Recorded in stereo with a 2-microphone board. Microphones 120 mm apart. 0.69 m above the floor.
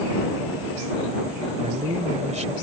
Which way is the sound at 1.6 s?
75° right (ahead or behind).